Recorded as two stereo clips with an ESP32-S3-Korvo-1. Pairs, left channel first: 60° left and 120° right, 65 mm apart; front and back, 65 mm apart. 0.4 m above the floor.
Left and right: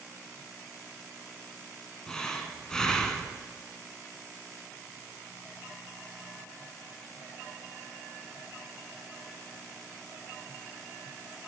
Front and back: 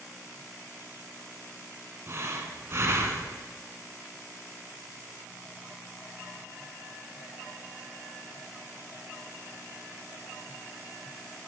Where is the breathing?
140° left, 0.6 m.